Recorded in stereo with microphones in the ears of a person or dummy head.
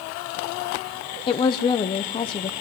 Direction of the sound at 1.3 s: 25° left (ahead or behind).